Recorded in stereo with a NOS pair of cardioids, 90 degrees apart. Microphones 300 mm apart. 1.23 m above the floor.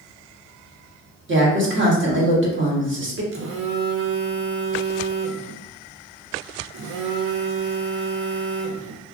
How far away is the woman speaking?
About 1.3 m.